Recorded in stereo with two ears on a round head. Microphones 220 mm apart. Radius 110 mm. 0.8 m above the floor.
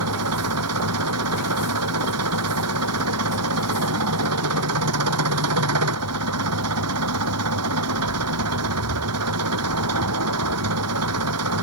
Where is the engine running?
70° right (ahead or behind).